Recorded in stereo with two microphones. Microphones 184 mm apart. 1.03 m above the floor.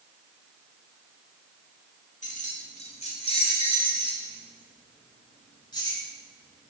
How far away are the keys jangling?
About 1.8 m.